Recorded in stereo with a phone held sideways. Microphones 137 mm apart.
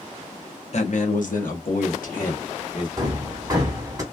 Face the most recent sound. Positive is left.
turn(degrees=-25)  # may be behind; listen again after turning